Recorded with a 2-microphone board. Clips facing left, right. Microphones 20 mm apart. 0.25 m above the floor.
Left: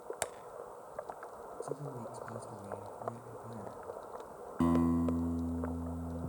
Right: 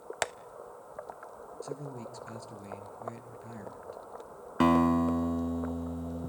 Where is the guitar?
50° right (ahead or behind), 0.8 m.